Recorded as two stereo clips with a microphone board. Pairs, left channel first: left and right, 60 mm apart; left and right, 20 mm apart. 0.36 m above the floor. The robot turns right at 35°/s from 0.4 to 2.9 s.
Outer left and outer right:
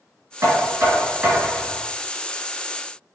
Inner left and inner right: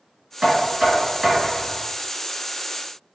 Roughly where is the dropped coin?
I don't hear a dropped coin.